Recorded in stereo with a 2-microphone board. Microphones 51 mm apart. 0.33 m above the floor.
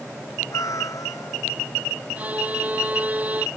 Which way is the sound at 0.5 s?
85° left.